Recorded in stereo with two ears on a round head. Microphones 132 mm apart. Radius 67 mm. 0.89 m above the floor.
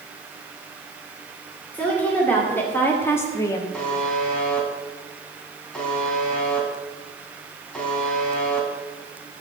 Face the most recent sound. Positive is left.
turn(degrees=5)  # may be behind; listen again after turning